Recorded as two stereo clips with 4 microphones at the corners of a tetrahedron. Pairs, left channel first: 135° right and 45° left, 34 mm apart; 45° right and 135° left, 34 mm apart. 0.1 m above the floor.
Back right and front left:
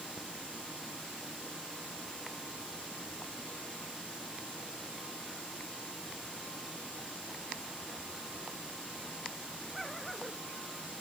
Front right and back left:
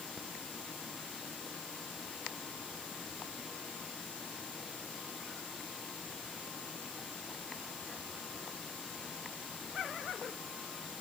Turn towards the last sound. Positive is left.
No sound to turn to.